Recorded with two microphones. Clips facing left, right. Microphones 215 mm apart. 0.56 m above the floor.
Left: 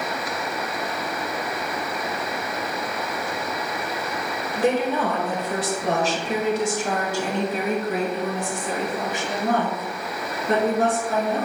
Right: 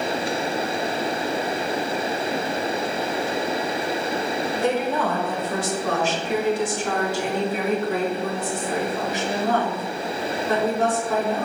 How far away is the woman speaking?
About 1.3 m.